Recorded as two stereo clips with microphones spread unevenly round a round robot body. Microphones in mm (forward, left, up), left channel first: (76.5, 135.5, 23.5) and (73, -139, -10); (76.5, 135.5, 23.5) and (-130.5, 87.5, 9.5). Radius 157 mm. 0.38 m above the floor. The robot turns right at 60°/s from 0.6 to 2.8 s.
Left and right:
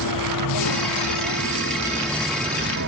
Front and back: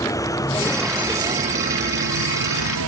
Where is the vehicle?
90° left; by 2.9 s 145° right.